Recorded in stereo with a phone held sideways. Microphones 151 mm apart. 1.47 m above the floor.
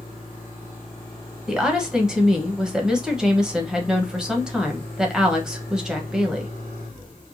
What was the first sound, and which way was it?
A woman speaking, 5° right (ahead or behind).